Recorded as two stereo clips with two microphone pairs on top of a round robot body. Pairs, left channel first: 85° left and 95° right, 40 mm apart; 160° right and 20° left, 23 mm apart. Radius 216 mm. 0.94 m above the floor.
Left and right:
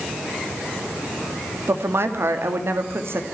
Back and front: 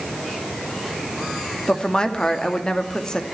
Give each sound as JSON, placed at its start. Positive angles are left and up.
{"t": 1.7, "sound": "a woman speaking", "azimuth_deg": -105, "distance_m": 2.5}